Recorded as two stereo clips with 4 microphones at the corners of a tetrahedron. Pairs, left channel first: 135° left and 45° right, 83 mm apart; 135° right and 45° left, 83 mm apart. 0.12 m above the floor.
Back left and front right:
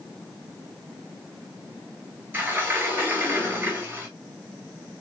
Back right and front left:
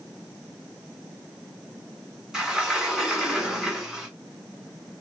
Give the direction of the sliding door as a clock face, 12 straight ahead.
1 o'clock.